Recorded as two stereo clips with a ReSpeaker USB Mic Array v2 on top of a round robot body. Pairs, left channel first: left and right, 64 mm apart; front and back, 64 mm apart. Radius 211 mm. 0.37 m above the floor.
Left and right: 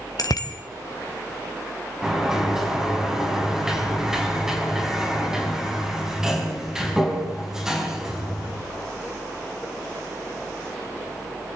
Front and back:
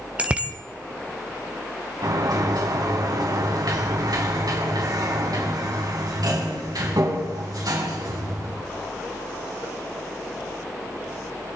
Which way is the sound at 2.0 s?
175° right.